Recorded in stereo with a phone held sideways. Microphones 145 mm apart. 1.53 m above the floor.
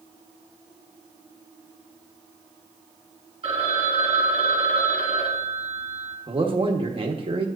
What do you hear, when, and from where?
3.4 s a phone ringing: 45° right (ahead or behind), 1.7 m
6.3 s a man speaking: 40° right (ahead or behind), 1.3 m